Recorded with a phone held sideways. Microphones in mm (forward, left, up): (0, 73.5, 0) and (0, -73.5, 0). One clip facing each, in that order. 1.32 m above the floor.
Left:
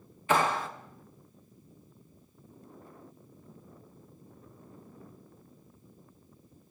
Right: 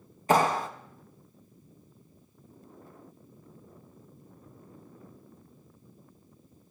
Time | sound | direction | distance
0.3 | a clap | 40° right (ahead or behind) | 0.9 m